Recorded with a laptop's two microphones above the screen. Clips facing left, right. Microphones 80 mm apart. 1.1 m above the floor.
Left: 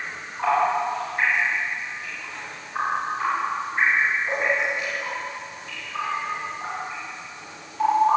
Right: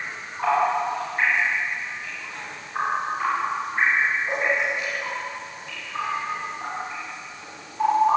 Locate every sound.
Only background noise.